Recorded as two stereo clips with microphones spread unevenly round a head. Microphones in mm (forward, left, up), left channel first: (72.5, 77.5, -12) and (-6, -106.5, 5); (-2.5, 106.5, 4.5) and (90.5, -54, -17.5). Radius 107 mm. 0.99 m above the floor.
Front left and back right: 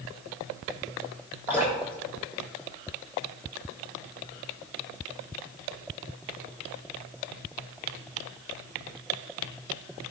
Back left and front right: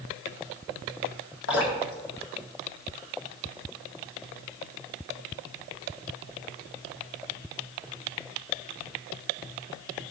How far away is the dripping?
About 2 m.